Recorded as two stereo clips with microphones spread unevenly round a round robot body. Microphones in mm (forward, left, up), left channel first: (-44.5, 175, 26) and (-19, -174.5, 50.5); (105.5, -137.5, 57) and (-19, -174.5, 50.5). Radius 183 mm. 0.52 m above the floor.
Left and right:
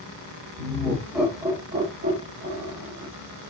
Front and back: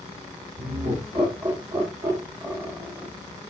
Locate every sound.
0.6 s laughter: 170° left, 1.5 m; by 3.1 s 80° right, 1.2 m